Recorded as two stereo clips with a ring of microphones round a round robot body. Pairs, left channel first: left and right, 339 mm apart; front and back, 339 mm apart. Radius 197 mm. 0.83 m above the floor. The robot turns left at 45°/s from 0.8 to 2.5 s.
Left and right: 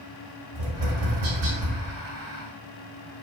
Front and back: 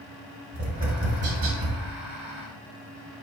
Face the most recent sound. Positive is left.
turn(degrees=170)